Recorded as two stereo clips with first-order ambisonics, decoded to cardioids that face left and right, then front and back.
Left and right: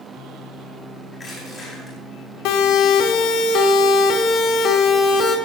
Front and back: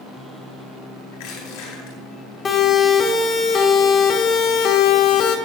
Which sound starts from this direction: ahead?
Crushing, at 1.1 s.